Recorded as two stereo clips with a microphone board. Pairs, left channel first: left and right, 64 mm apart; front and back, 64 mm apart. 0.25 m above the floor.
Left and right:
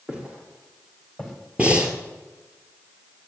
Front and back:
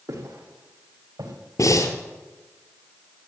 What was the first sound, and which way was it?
Footsteps, 160° right.